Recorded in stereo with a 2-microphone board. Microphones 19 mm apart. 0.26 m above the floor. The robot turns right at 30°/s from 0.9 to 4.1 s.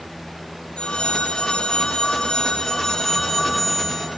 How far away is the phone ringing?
About 5 m.